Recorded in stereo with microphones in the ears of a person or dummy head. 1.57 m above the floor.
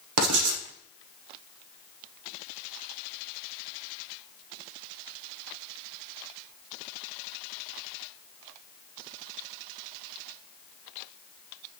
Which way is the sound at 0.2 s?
80° right.